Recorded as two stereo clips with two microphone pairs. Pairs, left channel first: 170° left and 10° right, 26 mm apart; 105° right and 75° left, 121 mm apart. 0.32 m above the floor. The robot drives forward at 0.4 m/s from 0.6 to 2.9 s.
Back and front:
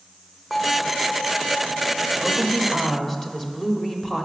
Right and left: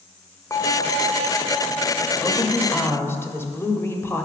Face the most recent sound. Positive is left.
turn(degrees=-125)